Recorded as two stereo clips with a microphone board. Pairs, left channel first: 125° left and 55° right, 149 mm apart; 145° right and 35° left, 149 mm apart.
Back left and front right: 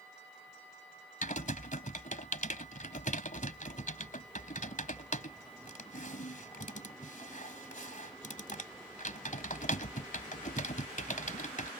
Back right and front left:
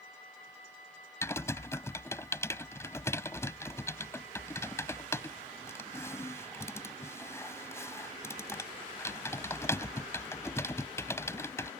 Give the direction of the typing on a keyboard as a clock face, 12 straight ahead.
7 o'clock.